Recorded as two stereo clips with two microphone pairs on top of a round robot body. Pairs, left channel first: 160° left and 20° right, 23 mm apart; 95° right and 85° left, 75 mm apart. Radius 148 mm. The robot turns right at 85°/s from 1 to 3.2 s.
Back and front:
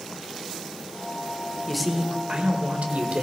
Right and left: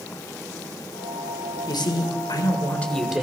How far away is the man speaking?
About 1.9 m.